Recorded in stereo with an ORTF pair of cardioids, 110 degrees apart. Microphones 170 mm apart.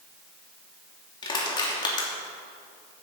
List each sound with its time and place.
1.2 s crushing: 25° left, 2.5 m